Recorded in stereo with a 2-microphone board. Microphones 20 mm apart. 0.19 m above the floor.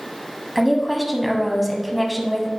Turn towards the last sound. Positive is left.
turn(degrees=-10)  # may be behind; listen again after turning